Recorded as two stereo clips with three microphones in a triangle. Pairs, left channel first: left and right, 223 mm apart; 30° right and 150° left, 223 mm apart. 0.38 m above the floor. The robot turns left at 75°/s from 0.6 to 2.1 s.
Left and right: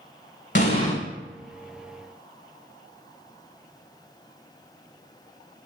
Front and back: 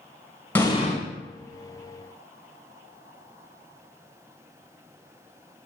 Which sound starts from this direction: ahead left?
An explosion, at 0.6 s.